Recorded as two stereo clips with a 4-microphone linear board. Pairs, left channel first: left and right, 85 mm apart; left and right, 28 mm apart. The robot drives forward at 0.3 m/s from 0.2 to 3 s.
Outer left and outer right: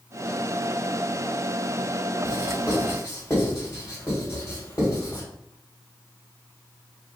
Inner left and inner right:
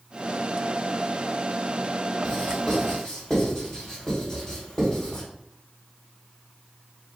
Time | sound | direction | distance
2.2 | writing | 30° left (ahead or behind) | 1.5 m